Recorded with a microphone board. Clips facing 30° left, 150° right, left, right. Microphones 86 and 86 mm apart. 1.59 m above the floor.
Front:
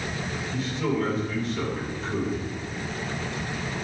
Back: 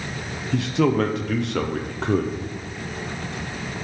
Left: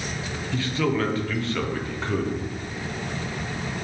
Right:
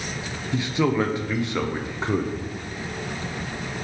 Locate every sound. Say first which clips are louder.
0.5 s a man speaking: back 8 dB, right 3 dB; 160° right, 0.7 m